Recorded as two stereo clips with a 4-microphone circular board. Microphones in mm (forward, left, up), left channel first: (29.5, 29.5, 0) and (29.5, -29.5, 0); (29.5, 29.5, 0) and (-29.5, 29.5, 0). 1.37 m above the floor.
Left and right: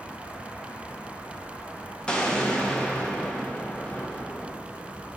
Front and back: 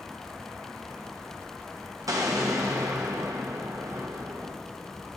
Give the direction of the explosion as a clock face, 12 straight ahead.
7 o'clock.